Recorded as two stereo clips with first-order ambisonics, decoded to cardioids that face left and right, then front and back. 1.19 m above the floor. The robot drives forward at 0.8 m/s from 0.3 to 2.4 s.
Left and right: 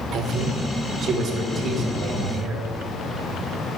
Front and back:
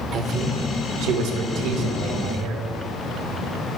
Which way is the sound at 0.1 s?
130° right.